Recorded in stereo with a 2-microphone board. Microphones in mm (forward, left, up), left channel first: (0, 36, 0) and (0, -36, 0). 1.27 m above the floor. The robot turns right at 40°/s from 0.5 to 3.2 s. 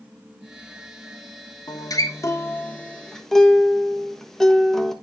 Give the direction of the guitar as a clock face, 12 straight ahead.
8 o'clock.